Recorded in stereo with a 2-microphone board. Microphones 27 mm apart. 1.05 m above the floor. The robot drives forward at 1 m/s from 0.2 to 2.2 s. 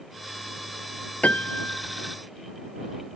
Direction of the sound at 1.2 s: 75° left (ahead or behind).